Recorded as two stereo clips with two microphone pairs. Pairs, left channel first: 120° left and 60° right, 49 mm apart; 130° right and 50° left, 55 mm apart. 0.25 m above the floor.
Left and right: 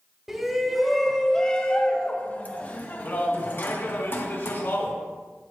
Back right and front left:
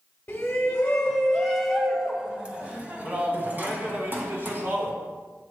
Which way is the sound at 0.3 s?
130° right.